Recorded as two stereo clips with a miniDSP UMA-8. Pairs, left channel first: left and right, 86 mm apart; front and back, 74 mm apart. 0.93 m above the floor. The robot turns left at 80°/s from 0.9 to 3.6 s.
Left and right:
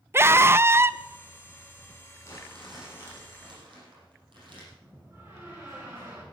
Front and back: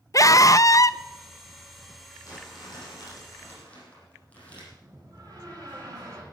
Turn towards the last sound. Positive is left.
turn(degrees=-145)